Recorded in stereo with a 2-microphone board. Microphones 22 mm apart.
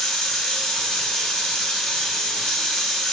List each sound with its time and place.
0.0 s running water: 60° left (ahead or behind), 1.5 m